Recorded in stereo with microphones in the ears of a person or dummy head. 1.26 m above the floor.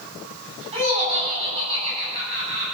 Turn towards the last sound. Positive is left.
turn(degrees=-30)  # may be behind; listen again after turning